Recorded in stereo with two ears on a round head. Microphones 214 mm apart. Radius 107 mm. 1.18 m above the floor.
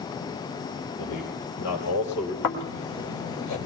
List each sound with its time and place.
1.0 s a man speaking: 90° left, 4 m; by 2.3 s 75° left (ahead or behind), 3 m
2.4 s snoring: 80° left, 2.5 m